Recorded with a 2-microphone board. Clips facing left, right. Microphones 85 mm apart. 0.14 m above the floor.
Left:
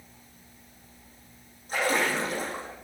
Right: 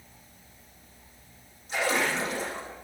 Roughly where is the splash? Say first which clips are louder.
Left 1 dB; left.